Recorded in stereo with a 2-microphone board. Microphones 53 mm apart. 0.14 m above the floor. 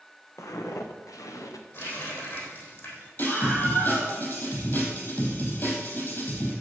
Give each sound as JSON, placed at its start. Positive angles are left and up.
{"t": 0.4, "sound": "footsteps", "side_deg": 65, "distance_m": 1.7}
{"t": 1.7, "sound": "a running tap", "side_deg": 45, "distance_m": 3.5}
{"t": 3.2, "sound": "a scream", "side_deg": 45, "distance_m": 5.0}